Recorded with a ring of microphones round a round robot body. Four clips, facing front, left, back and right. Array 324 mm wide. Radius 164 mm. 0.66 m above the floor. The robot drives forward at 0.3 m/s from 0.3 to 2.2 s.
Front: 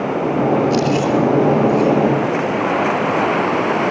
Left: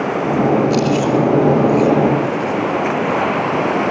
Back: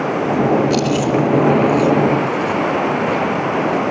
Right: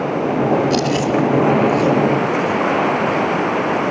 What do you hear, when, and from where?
0.7 s chewing: 155° right, 5.5 m